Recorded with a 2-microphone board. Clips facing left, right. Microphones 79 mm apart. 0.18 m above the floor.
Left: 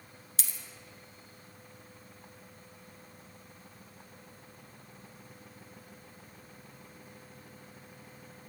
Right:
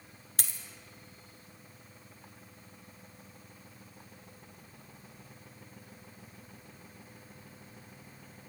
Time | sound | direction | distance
0.4 | a dropped coin | 50° right (ahead or behind) | 0.6 m